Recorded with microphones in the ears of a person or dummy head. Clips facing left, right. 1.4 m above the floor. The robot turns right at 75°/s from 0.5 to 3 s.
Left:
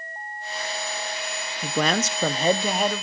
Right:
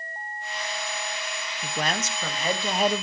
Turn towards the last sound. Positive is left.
turn(degrees=-160)